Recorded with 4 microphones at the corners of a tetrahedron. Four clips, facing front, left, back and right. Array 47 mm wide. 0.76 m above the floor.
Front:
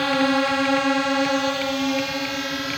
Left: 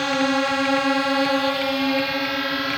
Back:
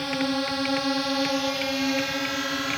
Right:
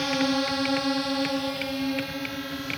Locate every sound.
0.0 s a drone: 30° left; by 2.8 s 95° left